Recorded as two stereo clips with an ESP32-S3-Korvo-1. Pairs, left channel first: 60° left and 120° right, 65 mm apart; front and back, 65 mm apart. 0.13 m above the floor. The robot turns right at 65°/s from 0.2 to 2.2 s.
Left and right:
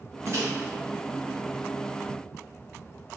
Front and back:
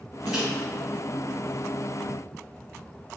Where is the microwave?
105° right, 2.0 m; by 0.5 s 95° right, 2.0 m.